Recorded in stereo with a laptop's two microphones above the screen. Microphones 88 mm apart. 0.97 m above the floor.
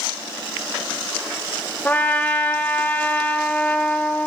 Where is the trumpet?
20° left (ahead or behind), 0.7 m.